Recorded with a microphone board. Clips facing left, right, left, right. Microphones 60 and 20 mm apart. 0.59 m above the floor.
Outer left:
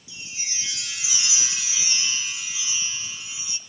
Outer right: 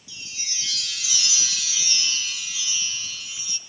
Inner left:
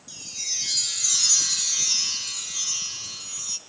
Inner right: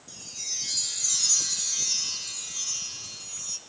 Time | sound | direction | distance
0.1 | a chime | 25° left (ahead or behind) | 1.2 m